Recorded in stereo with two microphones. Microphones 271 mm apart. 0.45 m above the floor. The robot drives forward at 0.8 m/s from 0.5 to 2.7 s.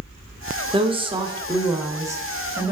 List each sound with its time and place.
0.7 s a woman speaking: 20° right (ahead or behind), 0.8 m; by 2.7 s 10° right (ahead or behind), 1.8 m